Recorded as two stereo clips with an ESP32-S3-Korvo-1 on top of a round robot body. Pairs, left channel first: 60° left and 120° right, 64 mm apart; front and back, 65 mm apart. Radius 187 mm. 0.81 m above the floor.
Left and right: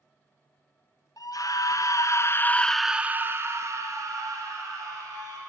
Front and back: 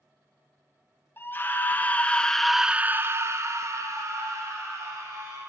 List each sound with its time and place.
1.2 s a scream: 50° left, 1.1 m; by 5.4 s 140° right, 1.8 m